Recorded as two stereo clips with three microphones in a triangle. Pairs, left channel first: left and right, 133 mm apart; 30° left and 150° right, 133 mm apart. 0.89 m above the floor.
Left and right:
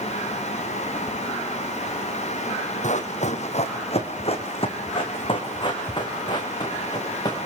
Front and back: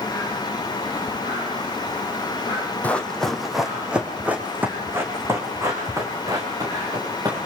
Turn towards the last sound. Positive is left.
turn(degrees=150)